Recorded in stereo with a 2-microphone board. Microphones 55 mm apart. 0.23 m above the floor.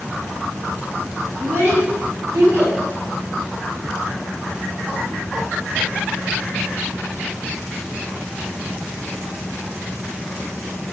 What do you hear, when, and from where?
1.4 s a child speaking: 55° right (ahead or behind), 1.9 m; by 2.8 s 50° right (ahead or behind), 2 m